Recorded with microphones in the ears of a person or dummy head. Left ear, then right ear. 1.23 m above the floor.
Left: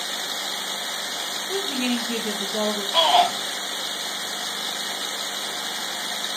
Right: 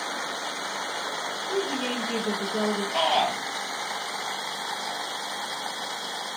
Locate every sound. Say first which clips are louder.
1.5 s a woman speaking: left 2 dB; 55° left (ahead or behind), 1.7 m
2.9 s a shout: left 6 dB; 15° left (ahead or behind), 1.5 m